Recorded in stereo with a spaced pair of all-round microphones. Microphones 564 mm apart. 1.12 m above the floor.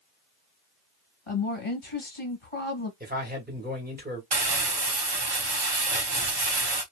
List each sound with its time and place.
1.3 s a woman speaking: 60° left (ahead or behind), 1.4 m
3.0 s a man speaking: 15° right (ahead or behind), 1.6 m
4.3 s crumpling: 45° right (ahead or behind), 0.8 m